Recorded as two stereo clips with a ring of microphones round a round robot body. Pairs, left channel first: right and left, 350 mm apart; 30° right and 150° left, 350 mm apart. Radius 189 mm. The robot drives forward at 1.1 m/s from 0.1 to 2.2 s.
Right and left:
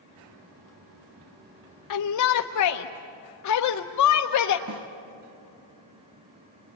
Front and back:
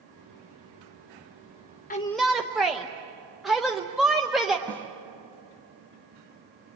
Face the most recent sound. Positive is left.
turn(degrees=55)